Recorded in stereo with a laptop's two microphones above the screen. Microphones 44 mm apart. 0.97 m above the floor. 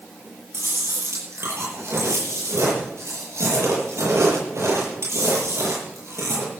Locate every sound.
0.5 s chewing: 85° right, 8.5 m